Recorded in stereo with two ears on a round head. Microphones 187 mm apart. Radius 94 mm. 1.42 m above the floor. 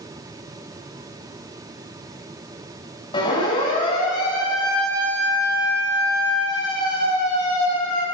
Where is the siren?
25° left (ahead or behind), 8 m.